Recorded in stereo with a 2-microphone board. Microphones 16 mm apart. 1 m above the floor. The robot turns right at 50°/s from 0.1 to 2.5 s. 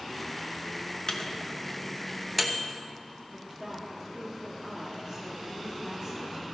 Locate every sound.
1.1 s a microwave: 55° left (ahead or behind), 0.9 m; by 2.7 s 10° right (ahead or behind), 0.9 m
3.3 s a woman speaking: 20° right (ahead or behind), 1.7 m